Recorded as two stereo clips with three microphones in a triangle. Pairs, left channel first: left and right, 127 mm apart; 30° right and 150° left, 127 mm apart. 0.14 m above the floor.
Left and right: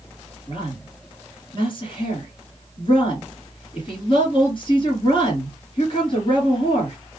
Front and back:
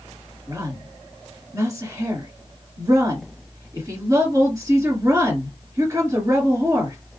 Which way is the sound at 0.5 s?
100° left.